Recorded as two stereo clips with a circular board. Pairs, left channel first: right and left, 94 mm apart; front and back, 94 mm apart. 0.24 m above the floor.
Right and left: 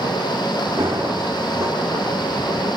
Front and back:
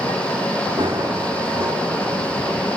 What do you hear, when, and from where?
0.8 s running footsteps: 150° left, 4.5 m